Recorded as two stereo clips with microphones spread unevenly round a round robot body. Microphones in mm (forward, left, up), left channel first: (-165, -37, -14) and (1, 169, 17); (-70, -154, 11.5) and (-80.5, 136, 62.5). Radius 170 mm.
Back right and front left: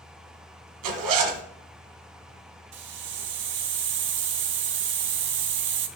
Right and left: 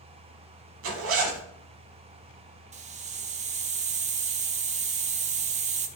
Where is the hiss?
25° left, 0.7 m.